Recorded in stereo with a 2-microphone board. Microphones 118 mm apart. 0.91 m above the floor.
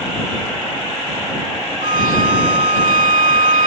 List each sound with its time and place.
1.8 s a violin: 75° right (ahead or behind)